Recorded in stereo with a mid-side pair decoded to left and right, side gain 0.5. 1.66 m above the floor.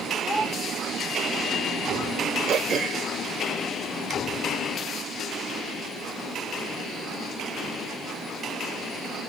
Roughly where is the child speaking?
Ahead.